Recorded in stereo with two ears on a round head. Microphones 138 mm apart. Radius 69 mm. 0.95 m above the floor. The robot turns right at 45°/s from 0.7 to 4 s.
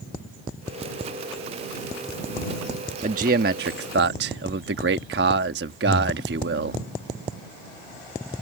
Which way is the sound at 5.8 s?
85° right.